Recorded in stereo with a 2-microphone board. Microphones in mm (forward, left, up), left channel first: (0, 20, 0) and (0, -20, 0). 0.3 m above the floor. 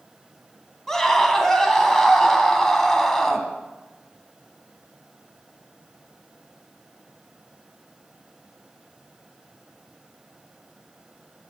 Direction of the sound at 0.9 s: 10° left (ahead or behind).